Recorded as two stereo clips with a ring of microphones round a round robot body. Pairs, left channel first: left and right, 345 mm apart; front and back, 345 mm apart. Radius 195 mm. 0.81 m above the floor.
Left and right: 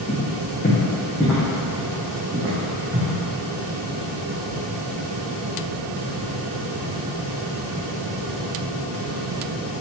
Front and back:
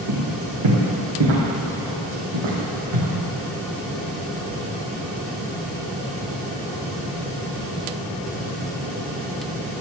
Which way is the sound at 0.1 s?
150° left.